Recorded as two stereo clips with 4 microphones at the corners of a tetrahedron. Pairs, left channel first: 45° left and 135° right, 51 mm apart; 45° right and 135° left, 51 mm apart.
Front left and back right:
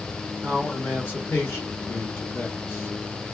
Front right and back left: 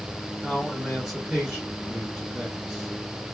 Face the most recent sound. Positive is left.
turn(degrees=55)